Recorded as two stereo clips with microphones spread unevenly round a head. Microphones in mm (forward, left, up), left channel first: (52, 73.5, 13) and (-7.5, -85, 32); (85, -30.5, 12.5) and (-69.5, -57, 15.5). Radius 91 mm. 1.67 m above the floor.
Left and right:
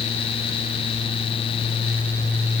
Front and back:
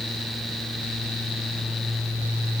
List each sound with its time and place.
Only background noise.